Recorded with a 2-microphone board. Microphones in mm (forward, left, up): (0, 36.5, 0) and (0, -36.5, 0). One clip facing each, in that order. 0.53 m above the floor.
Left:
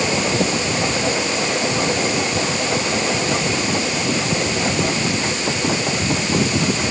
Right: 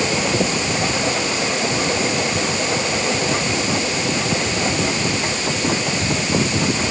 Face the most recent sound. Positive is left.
No sound to turn to.